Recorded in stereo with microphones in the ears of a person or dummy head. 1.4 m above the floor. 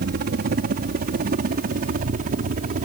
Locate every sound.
0.0 s a helicopter: 50° right (ahead or behind); by 2.9 s 45° right (ahead or behind)